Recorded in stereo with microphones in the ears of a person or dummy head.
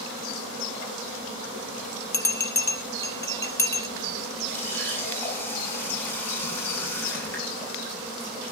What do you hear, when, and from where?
2.1 s a bell: 15° left (ahead or behind), 1.1 m
4.5 s a running tap: 10° left (ahead or behind), 8.5 m